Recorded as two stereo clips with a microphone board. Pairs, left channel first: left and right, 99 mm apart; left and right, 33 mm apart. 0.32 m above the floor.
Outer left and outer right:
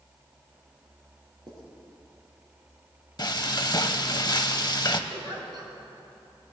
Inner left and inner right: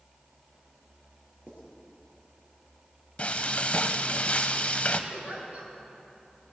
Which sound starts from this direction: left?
Frying, at 3.2 s.